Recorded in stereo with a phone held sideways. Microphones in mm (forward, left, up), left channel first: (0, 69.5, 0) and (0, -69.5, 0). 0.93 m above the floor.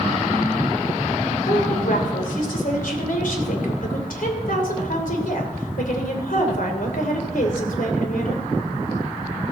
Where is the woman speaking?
80° left, 3 m.